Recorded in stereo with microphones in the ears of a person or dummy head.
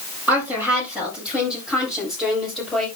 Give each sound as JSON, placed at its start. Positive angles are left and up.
{"t": 0.3, "sound": "a woman speaking", "side_deg": -5, "distance_m": 8.0}